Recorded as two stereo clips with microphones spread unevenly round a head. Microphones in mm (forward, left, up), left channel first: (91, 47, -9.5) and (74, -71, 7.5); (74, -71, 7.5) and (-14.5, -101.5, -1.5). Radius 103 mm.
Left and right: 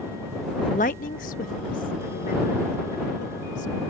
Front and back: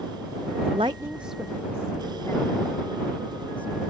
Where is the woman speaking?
150° left; by 3.7 s 90° left.